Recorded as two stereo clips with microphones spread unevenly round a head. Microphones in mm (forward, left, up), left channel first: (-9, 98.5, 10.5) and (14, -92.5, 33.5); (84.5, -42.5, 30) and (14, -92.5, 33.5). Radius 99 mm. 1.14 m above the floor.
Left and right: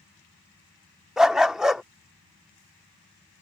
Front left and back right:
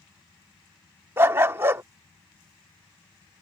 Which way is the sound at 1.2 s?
150° right.